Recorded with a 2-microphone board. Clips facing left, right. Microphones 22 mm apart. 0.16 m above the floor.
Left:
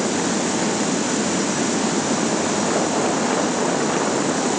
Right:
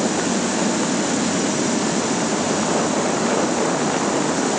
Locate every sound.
Only background noise.